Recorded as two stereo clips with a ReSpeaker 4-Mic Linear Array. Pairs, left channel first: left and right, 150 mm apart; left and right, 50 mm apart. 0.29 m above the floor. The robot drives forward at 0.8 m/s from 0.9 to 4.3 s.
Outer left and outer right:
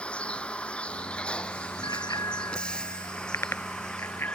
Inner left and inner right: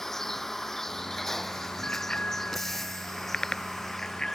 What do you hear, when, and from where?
0.0 s a vehicle: 5° left (ahead or behind)
1.8 s a bicycle bell: 25° left (ahead or behind); by 4.4 s 15° left (ahead or behind)